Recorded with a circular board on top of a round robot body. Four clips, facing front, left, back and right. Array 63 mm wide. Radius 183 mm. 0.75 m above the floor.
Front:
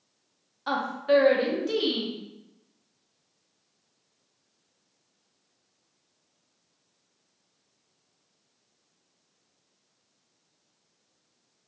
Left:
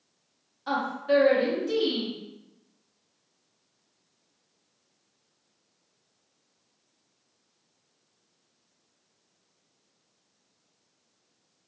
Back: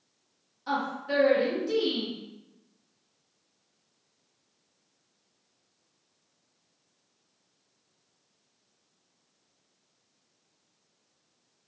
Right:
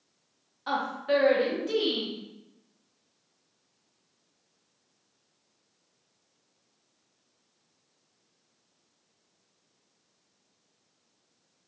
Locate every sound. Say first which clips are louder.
0.7 s a woman speaking: left 2 dB, front 6 dB; 20° right, 1.3 m